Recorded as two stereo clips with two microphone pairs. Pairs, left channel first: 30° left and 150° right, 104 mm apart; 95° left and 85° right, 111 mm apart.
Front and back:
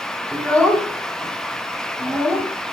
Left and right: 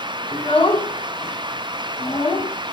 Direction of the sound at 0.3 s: 105° left.